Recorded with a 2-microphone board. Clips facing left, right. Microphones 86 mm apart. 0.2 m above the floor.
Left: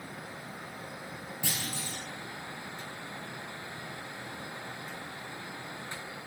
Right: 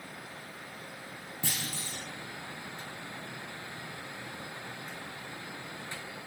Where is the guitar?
I don't hear a guitar.